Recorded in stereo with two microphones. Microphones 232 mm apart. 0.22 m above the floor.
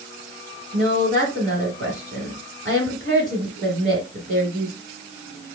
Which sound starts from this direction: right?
A woman speaking, at 0.7 s.